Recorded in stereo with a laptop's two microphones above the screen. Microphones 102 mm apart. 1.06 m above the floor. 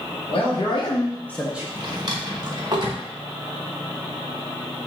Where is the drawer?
40° right (ahead or behind), 0.6 m.